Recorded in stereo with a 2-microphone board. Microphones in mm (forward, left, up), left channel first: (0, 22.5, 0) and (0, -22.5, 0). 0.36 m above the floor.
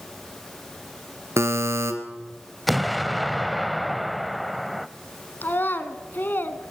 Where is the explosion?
Centre (ahead or behind), 0.7 m.